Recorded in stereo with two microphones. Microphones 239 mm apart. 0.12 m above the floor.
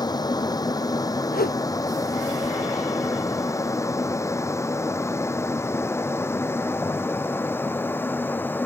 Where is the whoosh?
40° left (ahead or behind).